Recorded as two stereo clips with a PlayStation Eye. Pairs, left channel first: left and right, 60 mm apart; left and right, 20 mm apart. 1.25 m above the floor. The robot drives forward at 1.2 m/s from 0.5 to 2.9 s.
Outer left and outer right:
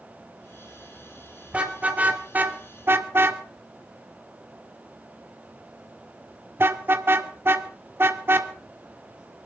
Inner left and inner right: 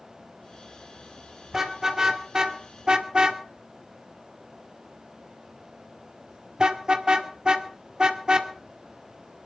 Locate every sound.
1.5 s a car horn: 20° right (ahead or behind), 3.5 m; by 8.5 s 40° right (ahead or behind), 1.9 m